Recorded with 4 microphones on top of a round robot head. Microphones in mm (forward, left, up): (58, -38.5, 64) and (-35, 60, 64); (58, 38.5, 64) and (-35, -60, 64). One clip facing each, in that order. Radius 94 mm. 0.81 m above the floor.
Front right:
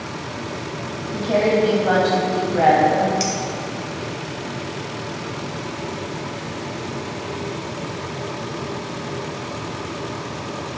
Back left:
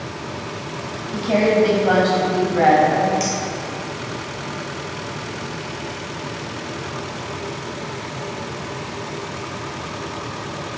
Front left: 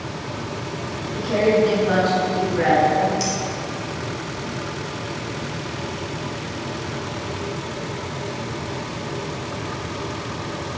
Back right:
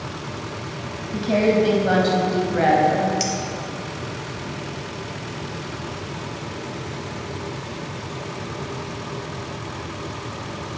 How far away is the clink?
About 3 m.